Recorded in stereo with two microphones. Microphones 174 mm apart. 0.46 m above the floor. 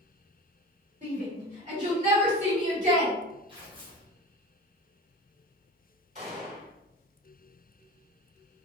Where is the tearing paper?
30° right (ahead or behind), 0.9 m.